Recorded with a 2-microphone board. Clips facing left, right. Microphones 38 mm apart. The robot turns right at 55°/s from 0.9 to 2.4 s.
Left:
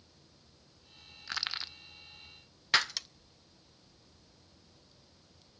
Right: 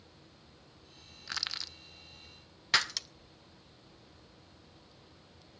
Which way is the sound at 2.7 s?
5° left (ahead or behind).